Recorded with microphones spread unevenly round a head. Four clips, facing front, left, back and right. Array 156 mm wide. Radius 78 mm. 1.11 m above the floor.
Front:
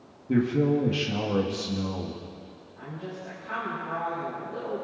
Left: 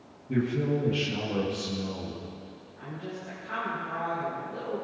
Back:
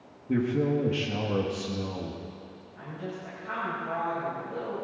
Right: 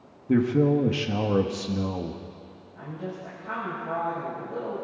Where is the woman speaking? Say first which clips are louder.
Right 3 dB, even; 110° right, 6.5 m.